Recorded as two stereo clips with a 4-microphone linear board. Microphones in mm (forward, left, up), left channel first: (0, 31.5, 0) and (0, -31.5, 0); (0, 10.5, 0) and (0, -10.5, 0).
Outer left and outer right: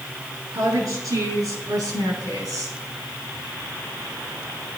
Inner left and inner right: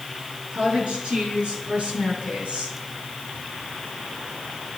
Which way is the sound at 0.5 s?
70° right (ahead or behind).